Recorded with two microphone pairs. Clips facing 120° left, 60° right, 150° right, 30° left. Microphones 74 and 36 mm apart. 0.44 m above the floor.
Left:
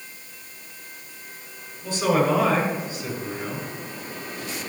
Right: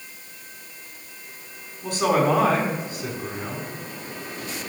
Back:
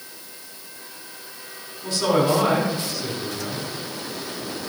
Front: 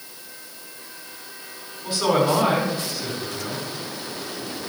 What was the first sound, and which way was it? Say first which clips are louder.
A man speaking: right 1 dB, even; 55° right.